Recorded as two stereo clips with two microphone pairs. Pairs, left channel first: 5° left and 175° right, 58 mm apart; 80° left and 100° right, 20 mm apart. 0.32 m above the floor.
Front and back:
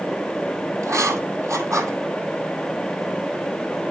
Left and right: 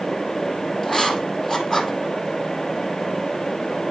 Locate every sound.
0.8 s writing: 155° left, 1.7 m